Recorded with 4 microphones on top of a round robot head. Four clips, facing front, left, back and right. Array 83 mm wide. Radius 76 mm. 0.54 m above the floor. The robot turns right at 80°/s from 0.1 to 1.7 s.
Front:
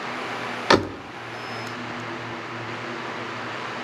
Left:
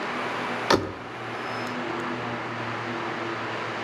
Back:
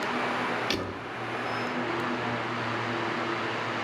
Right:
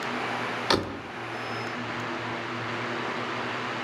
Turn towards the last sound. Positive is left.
turn(degrees=95)